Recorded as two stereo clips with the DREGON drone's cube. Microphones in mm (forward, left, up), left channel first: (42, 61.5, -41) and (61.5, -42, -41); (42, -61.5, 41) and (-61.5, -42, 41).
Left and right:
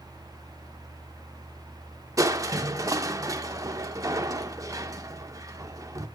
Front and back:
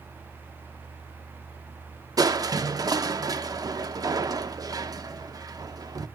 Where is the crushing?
135° right, 0.6 m.